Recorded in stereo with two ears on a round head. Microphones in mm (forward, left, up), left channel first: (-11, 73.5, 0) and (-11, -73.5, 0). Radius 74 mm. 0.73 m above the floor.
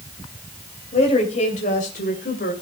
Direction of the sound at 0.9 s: 45° left (ahead or behind).